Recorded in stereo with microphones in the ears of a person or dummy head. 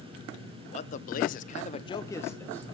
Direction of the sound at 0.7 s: 35° left (ahead or behind).